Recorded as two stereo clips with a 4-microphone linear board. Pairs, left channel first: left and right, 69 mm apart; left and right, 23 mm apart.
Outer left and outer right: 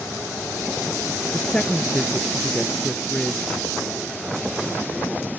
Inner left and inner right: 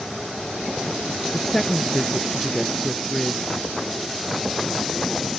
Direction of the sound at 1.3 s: 15° left (ahead or behind).